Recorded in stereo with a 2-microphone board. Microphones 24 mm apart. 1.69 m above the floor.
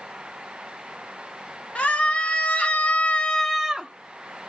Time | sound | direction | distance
1.8 | a scream | 60° left (ahead or behind) | 2 m